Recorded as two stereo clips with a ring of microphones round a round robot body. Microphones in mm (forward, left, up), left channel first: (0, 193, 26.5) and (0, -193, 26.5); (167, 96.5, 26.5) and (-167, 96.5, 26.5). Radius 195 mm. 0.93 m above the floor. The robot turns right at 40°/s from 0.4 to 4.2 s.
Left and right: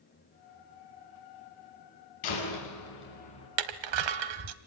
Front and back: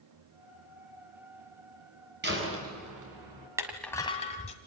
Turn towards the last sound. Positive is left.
turn(degrees=-75)